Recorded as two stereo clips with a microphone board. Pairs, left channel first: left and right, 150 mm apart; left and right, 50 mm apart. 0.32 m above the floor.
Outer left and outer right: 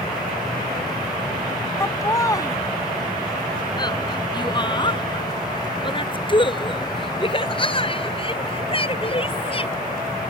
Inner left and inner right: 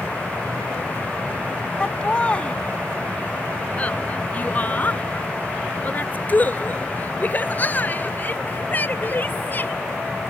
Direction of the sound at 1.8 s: 20° left (ahead or behind).